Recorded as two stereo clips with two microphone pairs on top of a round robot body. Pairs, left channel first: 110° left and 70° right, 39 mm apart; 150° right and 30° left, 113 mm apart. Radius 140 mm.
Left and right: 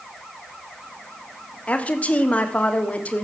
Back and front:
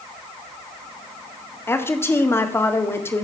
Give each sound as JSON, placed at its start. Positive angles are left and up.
{"t": 1.7, "sound": "a woman speaking", "azimuth_deg": 140, "distance_m": 2.0}